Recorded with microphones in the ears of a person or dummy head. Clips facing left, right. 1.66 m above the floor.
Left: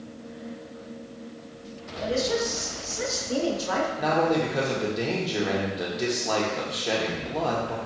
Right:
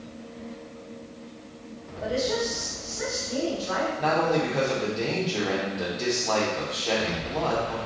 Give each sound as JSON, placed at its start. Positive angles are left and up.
{"t": 2.0, "sound": "a woman speaking", "side_deg": 35, "distance_m": 1.6}
{"t": 4.0, "sound": "a man speaking", "side_deg": 15, "distance_m": 1.0}